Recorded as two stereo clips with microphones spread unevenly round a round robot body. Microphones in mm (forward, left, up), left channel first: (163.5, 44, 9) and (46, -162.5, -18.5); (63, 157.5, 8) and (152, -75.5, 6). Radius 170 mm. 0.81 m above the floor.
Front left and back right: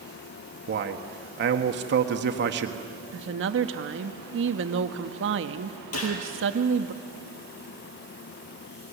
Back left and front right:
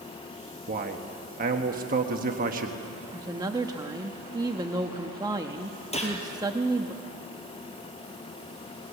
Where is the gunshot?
45° left, 5 m.